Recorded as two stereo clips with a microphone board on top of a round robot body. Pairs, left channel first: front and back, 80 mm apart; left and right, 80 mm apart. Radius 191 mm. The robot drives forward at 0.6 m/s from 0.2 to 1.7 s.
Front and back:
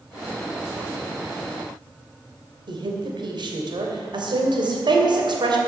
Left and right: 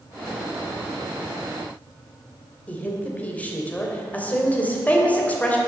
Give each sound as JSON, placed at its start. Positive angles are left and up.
{"t": 2.7, "sound": "a woman speaking", "azimuth_deg": 160, "distance_m": 3.0}